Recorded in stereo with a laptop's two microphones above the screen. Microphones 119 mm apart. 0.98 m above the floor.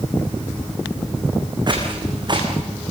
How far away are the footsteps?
About 4.5 m.